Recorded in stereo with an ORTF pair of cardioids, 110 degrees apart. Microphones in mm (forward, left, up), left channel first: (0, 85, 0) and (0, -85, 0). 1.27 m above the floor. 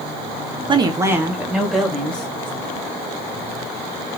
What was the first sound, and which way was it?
A woman speaking, 30° right.